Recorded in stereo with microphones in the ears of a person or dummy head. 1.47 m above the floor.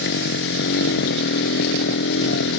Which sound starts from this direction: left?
A motorcycle, at 0.0 s.